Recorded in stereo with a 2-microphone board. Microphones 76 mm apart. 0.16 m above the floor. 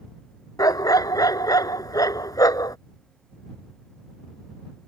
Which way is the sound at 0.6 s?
55° left (ahead or behind).